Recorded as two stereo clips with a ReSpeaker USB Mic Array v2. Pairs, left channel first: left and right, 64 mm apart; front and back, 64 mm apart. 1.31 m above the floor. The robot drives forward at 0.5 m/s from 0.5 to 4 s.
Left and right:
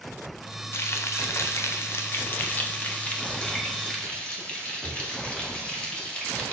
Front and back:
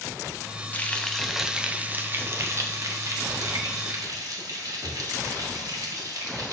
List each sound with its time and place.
0.7 s frying: 55° left, 0.7 m; by 6.5 s 160° left, 1.5 m